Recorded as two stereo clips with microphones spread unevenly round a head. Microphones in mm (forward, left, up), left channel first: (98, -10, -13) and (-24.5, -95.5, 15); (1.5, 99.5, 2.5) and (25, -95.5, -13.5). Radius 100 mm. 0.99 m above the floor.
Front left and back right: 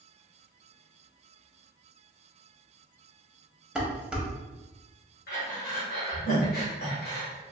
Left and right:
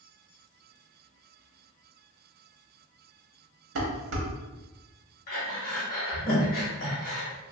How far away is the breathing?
About 0.9 m.